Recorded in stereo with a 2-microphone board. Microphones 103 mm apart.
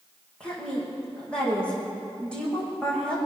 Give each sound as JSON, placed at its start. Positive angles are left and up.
{"t": 0.4, "sound": "a woman speaking", "side_deg": 10, "distance_m": 6.5}